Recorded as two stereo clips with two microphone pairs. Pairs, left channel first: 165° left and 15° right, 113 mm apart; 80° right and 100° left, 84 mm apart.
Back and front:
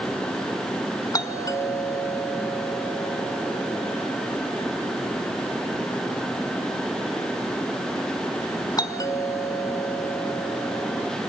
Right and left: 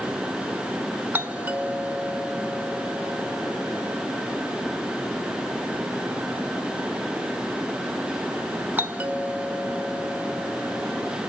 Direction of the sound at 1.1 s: 150° left.